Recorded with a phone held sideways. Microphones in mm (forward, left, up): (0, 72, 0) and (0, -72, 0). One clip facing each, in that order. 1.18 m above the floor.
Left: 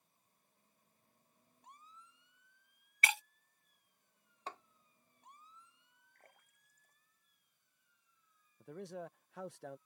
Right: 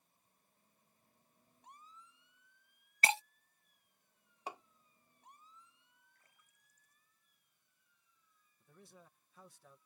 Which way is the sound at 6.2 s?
60° left (ahead or behind).